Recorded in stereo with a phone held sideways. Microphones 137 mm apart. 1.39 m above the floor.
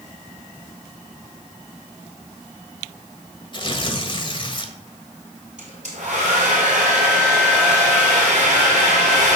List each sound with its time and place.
3.5 s tearing paper: 35° left (ahead or behind), 1.4 m
5.6 s a hair dryer: 60° right (ahead or behind), 5 m